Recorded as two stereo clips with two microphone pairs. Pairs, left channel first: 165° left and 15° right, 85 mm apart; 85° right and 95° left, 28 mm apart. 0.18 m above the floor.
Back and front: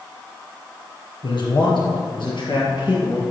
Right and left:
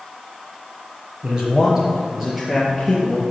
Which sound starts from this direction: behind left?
A man speaking, at 1.2 s.